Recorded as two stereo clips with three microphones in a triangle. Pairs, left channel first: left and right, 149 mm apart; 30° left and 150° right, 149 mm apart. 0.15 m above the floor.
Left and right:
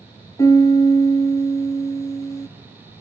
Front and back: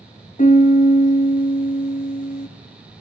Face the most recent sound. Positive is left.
turn(degrees=25)